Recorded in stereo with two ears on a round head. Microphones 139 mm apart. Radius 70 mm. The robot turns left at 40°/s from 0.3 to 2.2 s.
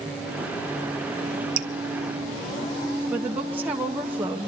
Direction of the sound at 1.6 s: 60° right (ahead or behind).